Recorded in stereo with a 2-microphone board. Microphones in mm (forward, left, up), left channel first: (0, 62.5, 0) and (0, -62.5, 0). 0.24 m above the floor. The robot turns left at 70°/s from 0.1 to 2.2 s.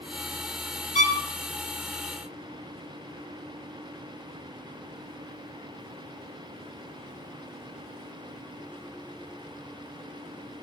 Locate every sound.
0.9 s a violin: 80° left, 0.9 m; by 1.2 s 75° left (ahead or behind), 0.9 m